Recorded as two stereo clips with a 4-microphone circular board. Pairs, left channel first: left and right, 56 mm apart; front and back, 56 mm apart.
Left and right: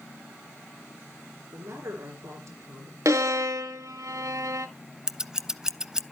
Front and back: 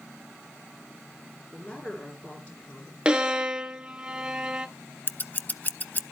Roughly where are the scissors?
Ahead.